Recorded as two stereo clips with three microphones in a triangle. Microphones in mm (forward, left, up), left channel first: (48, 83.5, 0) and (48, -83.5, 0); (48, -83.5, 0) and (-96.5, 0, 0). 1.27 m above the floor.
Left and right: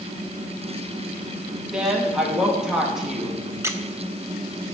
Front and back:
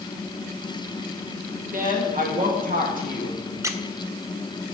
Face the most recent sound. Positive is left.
turn(degrees=-150)